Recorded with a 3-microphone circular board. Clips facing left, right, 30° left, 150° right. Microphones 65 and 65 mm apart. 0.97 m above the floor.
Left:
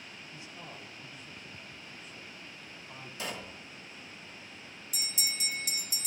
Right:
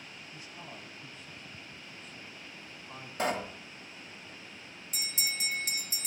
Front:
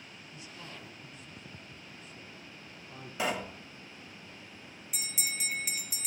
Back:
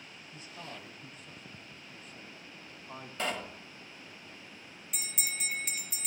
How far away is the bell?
About 0.7 m.